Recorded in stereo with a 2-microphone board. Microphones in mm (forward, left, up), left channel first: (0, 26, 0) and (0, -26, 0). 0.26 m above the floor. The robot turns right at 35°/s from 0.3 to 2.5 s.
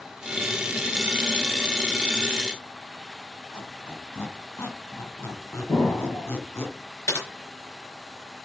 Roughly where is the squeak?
Left.